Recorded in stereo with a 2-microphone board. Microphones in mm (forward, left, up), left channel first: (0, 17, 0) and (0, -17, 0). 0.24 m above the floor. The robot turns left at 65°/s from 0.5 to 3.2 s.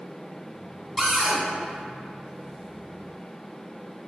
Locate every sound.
1.0 s a cupboard door: 5° left (ahead or behind), 1.5 m; by 1.4 s 15° right (ahead or behind), 1.5 m